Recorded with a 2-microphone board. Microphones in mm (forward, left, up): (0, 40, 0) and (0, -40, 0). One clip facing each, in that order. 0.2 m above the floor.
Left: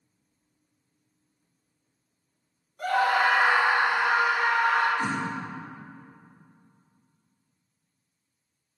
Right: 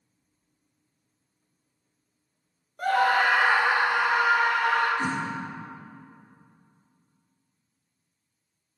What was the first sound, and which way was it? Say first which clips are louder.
A scream: right 1 dB; 45° right (ahead or behind).